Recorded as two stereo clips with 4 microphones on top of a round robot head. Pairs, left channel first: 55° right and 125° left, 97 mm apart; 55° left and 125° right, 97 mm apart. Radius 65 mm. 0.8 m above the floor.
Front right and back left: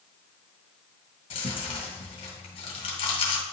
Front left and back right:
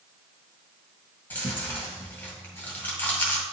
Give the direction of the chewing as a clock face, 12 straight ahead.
1 o'clock.